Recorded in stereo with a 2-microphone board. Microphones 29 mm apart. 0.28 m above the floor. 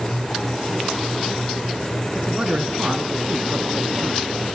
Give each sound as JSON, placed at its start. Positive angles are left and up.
{"t": 2.1, "sound": "a man speaking", "side_deg": -30, "distance_m": 3.0}